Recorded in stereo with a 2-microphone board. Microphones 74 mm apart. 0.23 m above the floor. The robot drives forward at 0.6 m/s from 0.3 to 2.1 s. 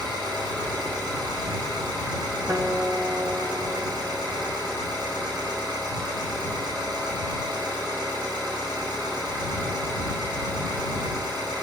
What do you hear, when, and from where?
0.0 s an engine running: 75° right (ahead or behind), 5.5 m; by 11.6 s 80° right, 5.5 m
2.5 s a guitar: 40° right (ahead or behind), 1.7 m